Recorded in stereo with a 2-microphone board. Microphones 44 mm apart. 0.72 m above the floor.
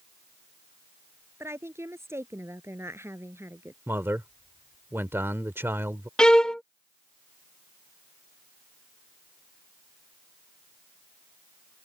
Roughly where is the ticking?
I don't hear ticking.